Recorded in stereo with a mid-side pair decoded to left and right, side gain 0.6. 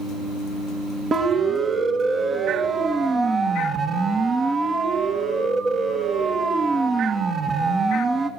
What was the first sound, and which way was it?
A siren, 40° right.